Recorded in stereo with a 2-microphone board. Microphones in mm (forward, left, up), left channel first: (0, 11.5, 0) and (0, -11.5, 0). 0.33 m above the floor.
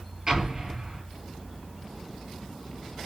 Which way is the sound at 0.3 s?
30° right (ahead or behind).